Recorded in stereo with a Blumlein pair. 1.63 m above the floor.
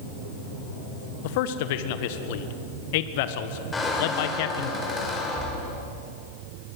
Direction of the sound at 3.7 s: 10° left.